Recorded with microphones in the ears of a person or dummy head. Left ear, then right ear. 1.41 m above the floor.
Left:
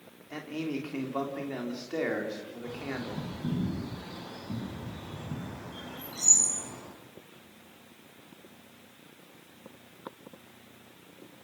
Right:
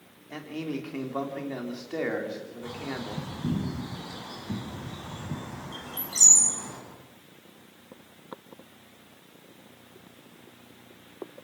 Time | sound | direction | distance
0.3 | a man speaking | 5° right (ahead or behind) | 3.5 m
2.6 | a bird | 65° right (ahead or behind) | 10 m